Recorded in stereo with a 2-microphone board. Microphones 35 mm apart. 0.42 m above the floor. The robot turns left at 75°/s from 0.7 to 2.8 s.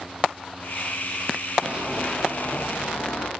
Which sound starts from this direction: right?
Running footsteps, at 1.6 s.